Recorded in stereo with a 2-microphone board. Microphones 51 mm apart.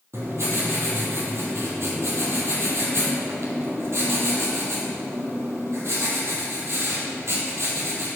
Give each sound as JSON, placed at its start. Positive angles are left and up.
{"t": 0.1, "sound": "writing", "side_deg": -60, "distance_m": 2.0}